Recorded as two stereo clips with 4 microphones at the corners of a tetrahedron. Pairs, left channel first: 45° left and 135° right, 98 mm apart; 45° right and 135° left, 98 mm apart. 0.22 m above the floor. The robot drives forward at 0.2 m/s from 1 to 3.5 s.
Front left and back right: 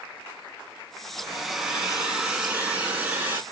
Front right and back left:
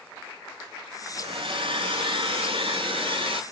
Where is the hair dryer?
135° left, 0.7 m; by 3.4 s 150° left, 1.1 m.